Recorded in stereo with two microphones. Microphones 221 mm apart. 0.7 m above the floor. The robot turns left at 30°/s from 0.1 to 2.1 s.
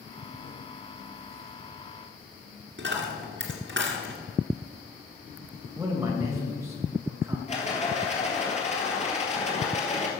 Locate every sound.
2.8 s a dropped coin: 60° right (ahead or behind), 2 m
5.8 s a man speaking: 15° right (ahead or behind), 2.5 m
7.5 s a rattle: 30° left (ahead or behind), 2 m